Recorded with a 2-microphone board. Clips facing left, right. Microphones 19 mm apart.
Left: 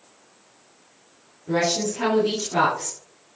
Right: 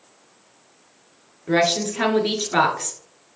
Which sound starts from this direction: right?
A woman speaking, at 1.5 s.